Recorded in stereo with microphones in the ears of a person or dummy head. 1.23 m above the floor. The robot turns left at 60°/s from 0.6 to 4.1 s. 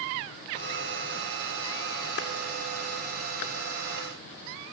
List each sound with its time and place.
2.2 s a clap: 80° left, 2.5 m; by 2.3 s 70° left (ahead or behind), 2.5 m